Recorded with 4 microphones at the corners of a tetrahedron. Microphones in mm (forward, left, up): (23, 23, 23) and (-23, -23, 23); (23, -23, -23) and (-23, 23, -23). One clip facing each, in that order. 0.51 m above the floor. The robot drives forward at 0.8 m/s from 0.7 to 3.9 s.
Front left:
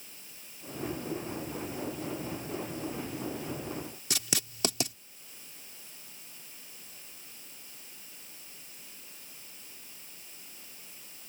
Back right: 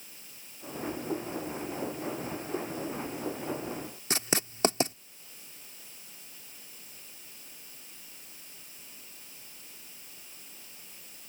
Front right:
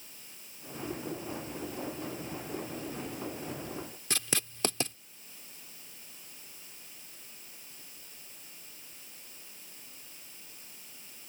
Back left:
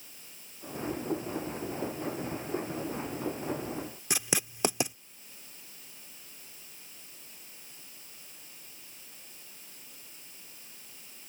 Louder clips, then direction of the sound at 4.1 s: Back right 6 dB, back left 2 dB; 160° right.